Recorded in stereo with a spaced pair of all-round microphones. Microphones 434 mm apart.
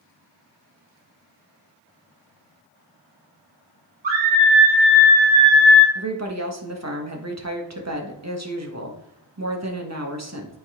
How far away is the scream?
About 2.5 m.